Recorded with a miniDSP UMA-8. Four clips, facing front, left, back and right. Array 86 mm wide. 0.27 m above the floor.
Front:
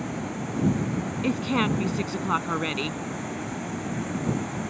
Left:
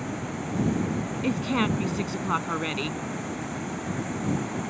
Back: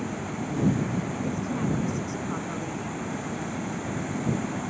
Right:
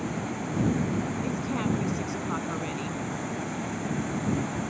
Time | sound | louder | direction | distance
1.2 | a woman speaking | left 3 dB, front 8 dB | 35° left | ?